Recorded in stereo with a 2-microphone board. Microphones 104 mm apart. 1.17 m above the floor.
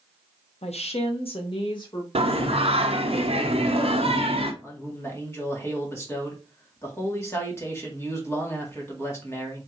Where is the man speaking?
25° left (ahead or behind), 1.7 m.